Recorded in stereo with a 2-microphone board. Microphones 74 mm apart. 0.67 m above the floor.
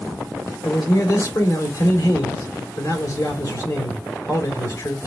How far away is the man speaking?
About 1.9 m.